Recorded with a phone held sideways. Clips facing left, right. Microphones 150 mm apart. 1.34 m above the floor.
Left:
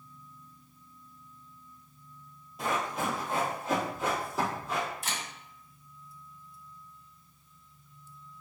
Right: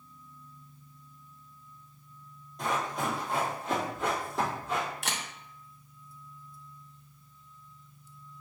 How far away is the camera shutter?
About 0.6 m.